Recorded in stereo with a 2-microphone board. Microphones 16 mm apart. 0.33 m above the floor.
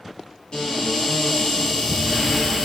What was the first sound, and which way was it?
A cupboard door, 60° left (ahead or behind).